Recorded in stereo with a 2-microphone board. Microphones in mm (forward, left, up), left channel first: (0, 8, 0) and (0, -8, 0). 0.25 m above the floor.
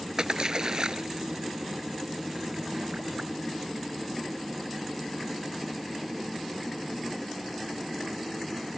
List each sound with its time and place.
0.2 s a splash: 45° right (ahead or behind)